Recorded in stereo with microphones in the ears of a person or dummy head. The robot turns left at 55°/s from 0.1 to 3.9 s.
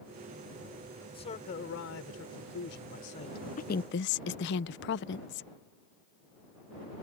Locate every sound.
1.0 s a man speaking: 160° left; by 3.5 s 25° left
3.6 s a woman speaking: 40° left (ahead or behind); by 5.5 s 60° left (ahead or behind)